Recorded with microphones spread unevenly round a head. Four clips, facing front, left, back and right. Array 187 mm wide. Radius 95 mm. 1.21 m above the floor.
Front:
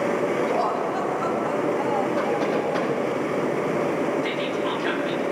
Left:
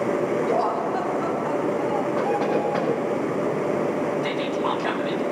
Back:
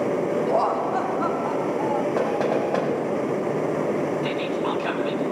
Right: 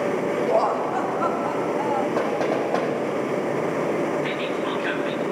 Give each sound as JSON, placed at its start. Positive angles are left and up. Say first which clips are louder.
{"t": 0.5, "sound": "laughter", "louder": "right 1 dB, back 2 dB", "azimuth_deg": -120, "distance_m": 3.0}
{"t": 2.2, "sound": "knocking", "louder": "even, back 1 dB", "azimuth_deg": -130, "distance_m": 6.5}
{"t": 4.2, "sound": "whispering", "louder": "left 1 dB, back 1 dB", "azimuth_deg": 135, "distance_m": 1.5}